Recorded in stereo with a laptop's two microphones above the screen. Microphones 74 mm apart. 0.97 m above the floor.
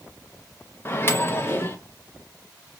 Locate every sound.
0.8 s a microwave: 30° left (ahead or behind), 0.7 m